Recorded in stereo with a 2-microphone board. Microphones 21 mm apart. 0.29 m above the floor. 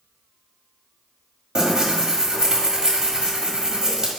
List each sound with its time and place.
1.6 s tearing paper: 40° right (ahead or behind), 1.6 m